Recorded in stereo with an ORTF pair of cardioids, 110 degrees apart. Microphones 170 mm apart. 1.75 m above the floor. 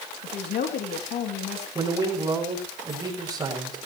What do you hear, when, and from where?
0.2 s a woman speaking: 65° left, 2.5 m
1.8 s a man speaking: 20° right, 6.5 m